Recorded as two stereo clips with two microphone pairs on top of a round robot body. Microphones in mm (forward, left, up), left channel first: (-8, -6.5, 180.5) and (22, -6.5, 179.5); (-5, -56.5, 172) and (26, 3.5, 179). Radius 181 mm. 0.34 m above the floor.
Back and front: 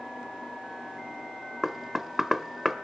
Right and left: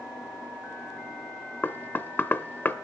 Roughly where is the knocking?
Right.